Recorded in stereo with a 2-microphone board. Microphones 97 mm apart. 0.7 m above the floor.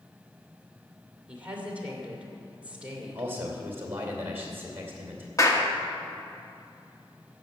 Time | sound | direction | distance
1.3 | a woman speaking | 15° right (ahead or behind) | 2.5 m
3.1 | a man speaking | 25° right (ahead or behind) | 2.5 m
5.4 | a clap | 35° left (ahead or behind) | 1.3 m